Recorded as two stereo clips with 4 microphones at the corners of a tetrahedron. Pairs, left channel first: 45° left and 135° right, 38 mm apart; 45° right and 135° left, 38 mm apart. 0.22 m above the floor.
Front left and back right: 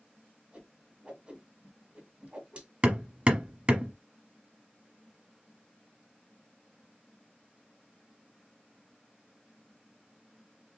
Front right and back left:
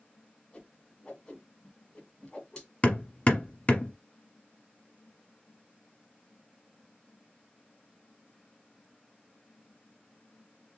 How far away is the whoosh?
About 1.8 m.